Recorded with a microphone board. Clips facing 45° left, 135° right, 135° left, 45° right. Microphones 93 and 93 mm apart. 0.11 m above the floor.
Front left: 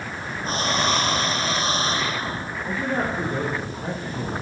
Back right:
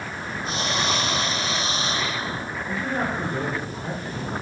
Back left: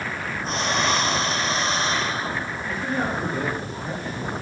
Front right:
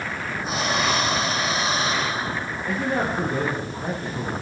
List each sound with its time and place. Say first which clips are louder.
0.4 s breathing: front left 3 dB, even; 35° left, 1.3 m
2.7 s a man speaking: front left 2 dB, front right 3 dB; 15° right, 3.5 m